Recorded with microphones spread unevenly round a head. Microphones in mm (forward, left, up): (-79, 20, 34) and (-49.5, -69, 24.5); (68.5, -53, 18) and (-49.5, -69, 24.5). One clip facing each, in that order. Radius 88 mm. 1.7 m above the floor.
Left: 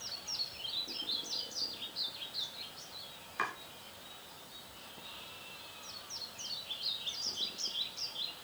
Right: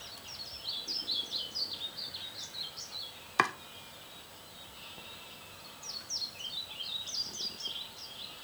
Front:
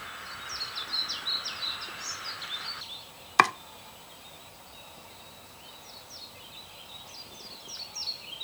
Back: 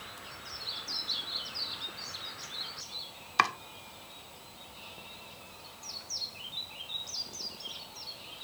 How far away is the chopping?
About 0.7 m.